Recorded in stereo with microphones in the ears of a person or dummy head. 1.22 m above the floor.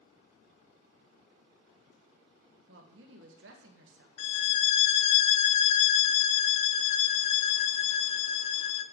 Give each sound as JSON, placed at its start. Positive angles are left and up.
{"t": 2.7, "sound": "a woman speaking", "side_deg": -70, "distance_m": 1.4}
{"t": 4.2, "sound": "a violin", "side_deg": 40, "distance_m": 0.6}